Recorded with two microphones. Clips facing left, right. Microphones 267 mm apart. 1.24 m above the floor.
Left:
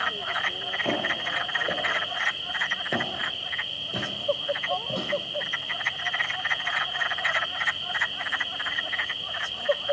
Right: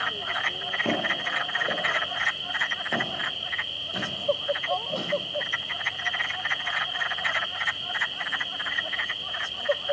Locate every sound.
0.8 s footsteps: 15° right (ahead or behind), 1.2 m; by 5.1 s 40° left (ahead or behind), 2 m